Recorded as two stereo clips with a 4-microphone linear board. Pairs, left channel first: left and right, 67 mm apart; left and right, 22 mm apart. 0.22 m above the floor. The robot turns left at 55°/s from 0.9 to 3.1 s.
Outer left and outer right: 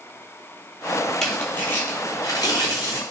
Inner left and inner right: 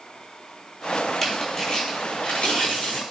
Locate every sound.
1.2 s tearing paper: 170° left, 0.9 m; by 3.0 s 75° left, 0.9 m